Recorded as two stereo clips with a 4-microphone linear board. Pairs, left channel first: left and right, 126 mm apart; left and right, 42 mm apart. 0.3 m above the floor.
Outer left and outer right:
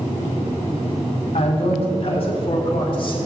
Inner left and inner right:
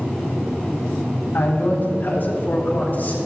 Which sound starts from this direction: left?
A man speaking, at 1.3 s.